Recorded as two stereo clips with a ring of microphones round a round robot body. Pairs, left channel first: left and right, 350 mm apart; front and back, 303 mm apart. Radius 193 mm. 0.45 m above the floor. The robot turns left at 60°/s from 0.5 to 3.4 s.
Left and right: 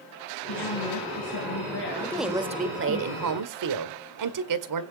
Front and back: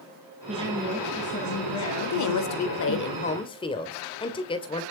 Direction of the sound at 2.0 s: 10° left.